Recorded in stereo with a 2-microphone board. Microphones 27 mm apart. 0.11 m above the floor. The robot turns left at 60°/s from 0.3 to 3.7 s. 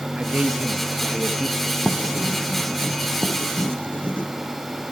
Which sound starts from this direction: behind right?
A man speaking, at 0.1 s.